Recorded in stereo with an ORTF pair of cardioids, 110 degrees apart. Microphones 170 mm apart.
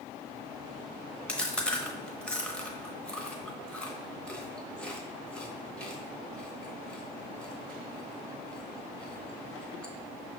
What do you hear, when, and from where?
1.3 s chewing: 5° left, 0.8 m